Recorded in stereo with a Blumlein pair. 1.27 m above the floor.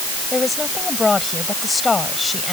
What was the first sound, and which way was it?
A woman speaking, 10° left.